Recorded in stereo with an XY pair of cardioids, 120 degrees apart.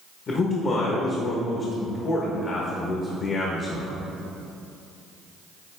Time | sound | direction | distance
0.3 | a man speaking | 45° left | 1.0 m